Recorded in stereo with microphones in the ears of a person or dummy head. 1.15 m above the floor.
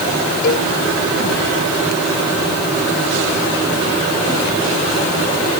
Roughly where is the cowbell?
Left.